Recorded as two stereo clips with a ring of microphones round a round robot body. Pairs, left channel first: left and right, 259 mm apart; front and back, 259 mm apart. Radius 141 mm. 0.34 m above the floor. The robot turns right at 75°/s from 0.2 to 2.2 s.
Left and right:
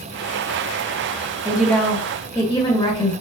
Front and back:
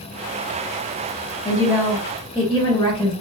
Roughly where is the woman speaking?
Ahead.